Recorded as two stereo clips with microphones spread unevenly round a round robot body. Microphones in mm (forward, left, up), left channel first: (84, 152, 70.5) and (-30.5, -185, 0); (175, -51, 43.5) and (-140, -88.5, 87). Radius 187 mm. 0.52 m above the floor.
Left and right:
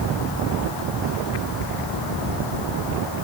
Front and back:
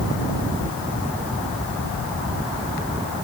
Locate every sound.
Only background noise.